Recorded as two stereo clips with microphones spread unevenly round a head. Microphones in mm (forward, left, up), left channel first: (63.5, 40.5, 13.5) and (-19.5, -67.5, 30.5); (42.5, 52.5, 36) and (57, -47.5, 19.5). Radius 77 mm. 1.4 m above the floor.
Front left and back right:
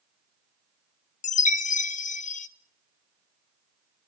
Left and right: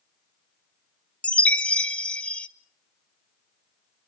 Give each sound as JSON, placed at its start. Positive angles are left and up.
{"t": 1.2, "sound": "a chime", "azimuth_deg": 20, "distance_m": 1.1}